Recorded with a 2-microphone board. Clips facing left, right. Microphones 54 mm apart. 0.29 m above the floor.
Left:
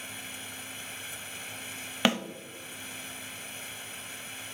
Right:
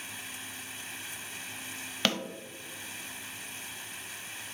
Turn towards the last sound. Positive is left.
turn(degrees=15)  # may be behind; listen again after turning